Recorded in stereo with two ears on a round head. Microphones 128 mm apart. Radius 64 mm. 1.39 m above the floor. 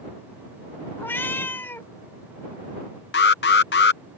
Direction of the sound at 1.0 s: 15° left (ahead or behind).